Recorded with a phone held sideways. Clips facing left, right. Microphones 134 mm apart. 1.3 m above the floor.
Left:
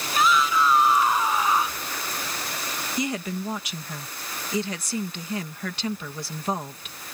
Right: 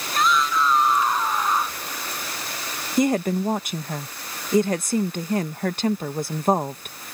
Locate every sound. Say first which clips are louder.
0.1 s a shout: even; 5° left (ahead or behind)
3.0 s a woman speaking: right 9 dB; 50° right (ahead or behind)